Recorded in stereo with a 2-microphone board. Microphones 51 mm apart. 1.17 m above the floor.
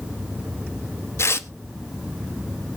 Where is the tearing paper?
55° left (ahead or behind), 0.8 m.